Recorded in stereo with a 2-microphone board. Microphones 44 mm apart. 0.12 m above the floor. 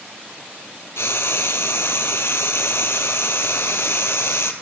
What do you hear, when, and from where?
1.0 s frying: 65° left (ahead or behind), 1.4 m